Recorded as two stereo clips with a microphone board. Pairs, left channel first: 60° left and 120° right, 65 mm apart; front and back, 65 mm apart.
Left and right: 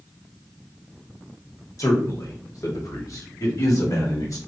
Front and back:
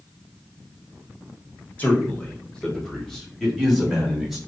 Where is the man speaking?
60° left, 1.2 m; by 4.4 s 95° left, 2 m.